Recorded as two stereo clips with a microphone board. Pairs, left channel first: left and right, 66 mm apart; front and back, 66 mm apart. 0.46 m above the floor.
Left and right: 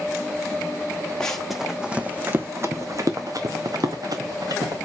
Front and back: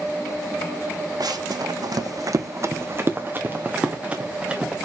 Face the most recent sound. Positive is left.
turn(degrees=-100)